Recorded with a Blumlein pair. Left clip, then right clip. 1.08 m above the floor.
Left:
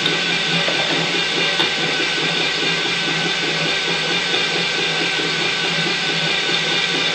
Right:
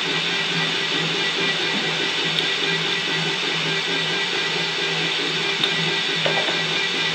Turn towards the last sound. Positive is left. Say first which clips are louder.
# left 4 dB
turn(degrees=65)